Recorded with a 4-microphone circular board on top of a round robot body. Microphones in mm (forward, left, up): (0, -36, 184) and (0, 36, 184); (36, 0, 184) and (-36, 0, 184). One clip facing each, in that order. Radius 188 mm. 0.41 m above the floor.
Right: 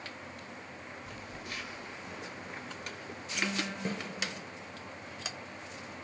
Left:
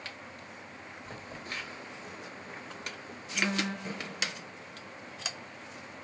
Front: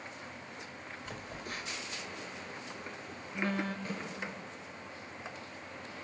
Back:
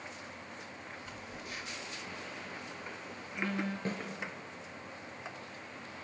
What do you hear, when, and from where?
1.1 s a phone buzzing: 40° left, 2 m
3.9 s a snare drum: 130° right, 7 m